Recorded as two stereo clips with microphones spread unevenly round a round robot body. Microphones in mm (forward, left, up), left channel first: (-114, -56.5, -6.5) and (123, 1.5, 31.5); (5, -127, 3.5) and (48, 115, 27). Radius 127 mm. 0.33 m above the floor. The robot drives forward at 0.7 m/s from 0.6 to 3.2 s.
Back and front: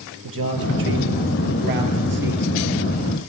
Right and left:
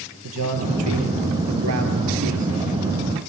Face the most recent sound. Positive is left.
turn(degrees=70)